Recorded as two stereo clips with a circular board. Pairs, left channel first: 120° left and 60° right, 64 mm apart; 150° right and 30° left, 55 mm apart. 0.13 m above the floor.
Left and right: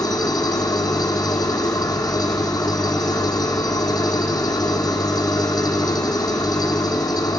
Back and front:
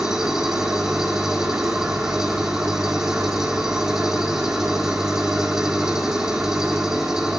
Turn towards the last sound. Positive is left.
turn(degrees=110)